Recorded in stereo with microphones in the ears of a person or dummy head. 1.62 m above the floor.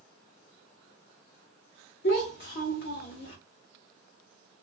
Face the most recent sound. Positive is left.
turn(degrees=55)  # may be behind; listen again after turning